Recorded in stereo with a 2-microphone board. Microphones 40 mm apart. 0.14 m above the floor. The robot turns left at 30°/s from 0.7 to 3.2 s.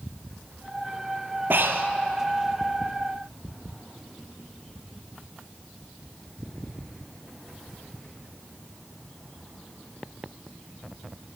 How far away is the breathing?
About 0.9 m.